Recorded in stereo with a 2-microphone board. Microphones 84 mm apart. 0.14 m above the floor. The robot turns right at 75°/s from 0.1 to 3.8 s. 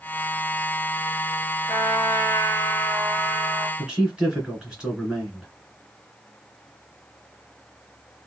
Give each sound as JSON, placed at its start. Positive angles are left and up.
{"t": 1.7, "sound": "a trumpet", "azimuth_deg": 65, "distance_m": 1.9}
{"t": 3.8, "sound": "a man speaking", "side_deg": -10, "distance_m": 1.8}